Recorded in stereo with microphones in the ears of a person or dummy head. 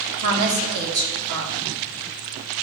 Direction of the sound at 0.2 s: 75° right (ahead or behind).